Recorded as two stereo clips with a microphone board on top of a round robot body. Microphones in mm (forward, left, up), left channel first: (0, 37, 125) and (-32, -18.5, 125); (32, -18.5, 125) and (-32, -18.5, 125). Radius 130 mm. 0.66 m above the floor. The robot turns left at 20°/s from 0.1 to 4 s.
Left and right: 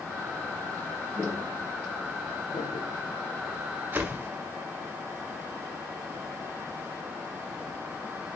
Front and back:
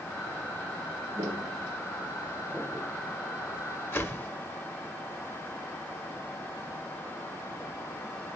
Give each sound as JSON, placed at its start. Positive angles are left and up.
{"t": 1.1, "sound": "footsteps", "azimuth_deg": 155, "distance_m": 2.5}
{"t": 3.9, "sound": "a whoosh", "azimuth_deg": -55, "distance_m": 1.5}